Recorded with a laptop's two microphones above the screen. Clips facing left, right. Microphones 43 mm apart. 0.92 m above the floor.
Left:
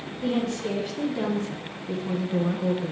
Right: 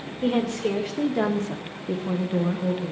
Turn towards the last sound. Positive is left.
turn(degrees=20)  # may be behind; listen again after turning